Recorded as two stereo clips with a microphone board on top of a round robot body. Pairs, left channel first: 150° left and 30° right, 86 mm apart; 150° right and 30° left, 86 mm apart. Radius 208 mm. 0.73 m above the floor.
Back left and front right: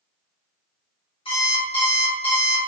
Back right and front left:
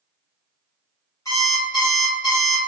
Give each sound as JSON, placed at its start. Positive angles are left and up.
{"t": 1.2, "sound": "an alarm clock", "azimuth_deg": 160, "distance_m": 1.8}